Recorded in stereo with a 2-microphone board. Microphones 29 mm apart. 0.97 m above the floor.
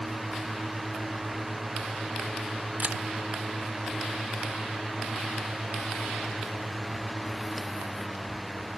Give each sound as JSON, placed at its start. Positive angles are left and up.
{"t": 2.8, "sound": "a camera shutter", "side_deg": -60, "distance_m": 1.3}